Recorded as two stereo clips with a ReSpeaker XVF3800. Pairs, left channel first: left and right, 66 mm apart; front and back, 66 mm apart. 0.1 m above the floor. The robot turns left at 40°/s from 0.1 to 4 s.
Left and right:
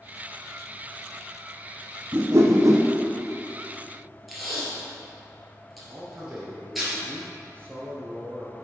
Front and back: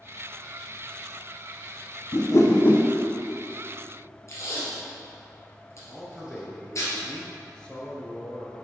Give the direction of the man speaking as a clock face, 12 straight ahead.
2 o'clock.